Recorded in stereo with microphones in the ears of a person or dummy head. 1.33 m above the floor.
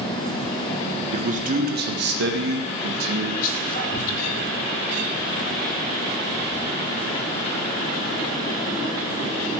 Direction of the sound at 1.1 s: 30° right (ahead or behind).